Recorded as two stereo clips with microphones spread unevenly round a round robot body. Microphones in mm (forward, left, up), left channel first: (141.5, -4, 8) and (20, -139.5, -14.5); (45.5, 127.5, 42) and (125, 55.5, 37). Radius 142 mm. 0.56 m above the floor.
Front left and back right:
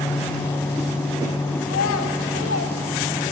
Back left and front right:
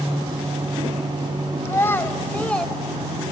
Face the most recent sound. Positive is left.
turn(degrees=55)